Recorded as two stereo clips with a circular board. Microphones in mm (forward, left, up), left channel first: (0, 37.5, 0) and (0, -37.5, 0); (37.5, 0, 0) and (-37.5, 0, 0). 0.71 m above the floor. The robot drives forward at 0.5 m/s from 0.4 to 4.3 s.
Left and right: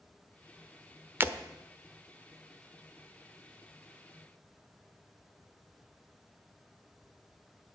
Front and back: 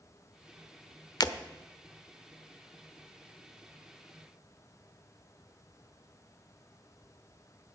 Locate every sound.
1.2 s breaking glass: 30° right, 0.9 m; by 1.4 s 35° right, 0.8 m